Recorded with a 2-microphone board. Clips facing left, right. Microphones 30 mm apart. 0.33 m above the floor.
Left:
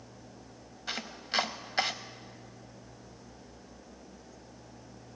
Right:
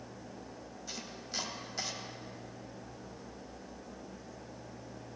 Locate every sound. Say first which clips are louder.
0.9 s chopping: left 9 dB; 65° left (ahead or behind), 0.5 m